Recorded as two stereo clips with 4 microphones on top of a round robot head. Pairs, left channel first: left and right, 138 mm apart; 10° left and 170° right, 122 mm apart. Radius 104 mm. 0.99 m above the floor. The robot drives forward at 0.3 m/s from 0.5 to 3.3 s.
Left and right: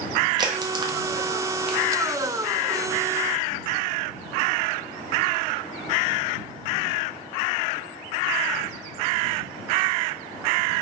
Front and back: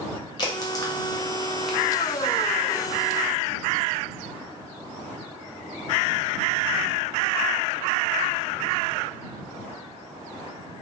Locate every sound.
0.4 s a crack: 35° right, 0.6 m; by 1.8 s 85° right, 0.5 m